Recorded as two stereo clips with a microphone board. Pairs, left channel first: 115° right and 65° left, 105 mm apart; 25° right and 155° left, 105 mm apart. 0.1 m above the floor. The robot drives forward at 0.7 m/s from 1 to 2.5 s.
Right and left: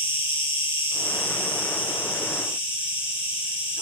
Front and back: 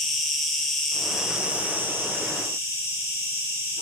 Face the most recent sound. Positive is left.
turn(degrees=-145)